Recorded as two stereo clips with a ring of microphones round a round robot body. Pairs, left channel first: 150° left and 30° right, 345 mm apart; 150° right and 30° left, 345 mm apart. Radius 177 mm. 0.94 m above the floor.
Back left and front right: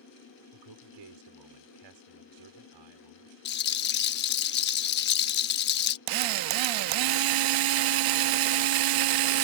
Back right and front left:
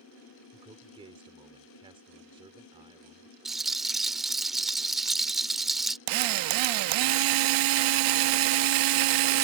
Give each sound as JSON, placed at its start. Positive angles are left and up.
{"t": 0.5, "sound": "a man speaking", "azimuth_deg": -45}
{"t": 3.5, "sound": "a rattle", "azimuth_deg": 120}
{"t": 6.1, "sound": "a drill", "azimuth_deg": 0}